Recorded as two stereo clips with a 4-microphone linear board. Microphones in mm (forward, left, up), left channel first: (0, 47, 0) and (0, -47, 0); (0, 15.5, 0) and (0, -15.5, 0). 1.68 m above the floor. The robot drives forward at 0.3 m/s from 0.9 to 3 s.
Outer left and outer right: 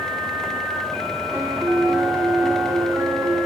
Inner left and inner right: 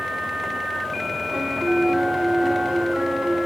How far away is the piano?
About 3.5 m.